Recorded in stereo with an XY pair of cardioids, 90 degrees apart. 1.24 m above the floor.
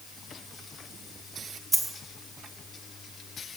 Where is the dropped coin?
10° right, 1.6 m.